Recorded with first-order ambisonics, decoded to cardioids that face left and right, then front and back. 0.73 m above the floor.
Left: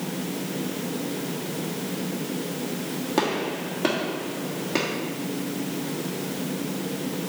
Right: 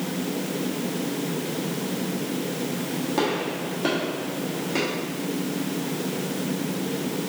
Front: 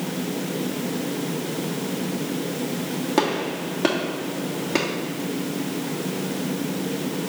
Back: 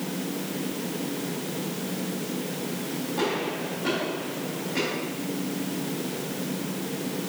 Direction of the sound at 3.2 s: 20° left.